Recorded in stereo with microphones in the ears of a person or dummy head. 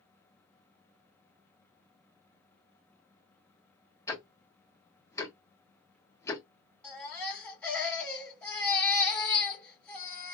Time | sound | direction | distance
4.1 | ticking | 15° left (ahead or behind) | 0.6 m
6.8 | a baby crying | 10° left (ahead or behind) | 1.6 m